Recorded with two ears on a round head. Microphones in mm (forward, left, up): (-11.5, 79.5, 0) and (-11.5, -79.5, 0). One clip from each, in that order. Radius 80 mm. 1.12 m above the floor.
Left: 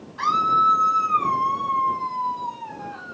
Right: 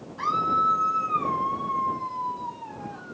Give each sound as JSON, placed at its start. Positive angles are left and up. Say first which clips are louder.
{"t": 0.2, "sound": "a scream", "louder": "left 5 dB", "side_deg": 45}